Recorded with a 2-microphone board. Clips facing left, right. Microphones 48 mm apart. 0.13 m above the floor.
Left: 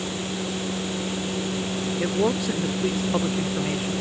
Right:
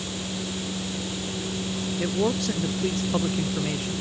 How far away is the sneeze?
No sneeze in this recording.